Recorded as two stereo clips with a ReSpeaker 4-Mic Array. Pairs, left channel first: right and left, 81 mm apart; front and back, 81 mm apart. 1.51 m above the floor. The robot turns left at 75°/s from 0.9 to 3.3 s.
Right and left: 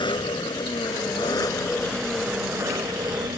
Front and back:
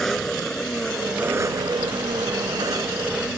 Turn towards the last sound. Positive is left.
turn(degrees=95)